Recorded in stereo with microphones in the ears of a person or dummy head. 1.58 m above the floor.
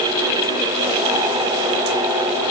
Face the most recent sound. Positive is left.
No sound to turn to.